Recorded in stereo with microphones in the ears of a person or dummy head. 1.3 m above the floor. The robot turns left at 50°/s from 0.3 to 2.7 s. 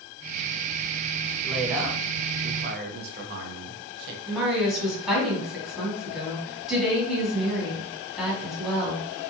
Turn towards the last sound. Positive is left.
turn(degrees=-5)  # may be behind; listen again after turning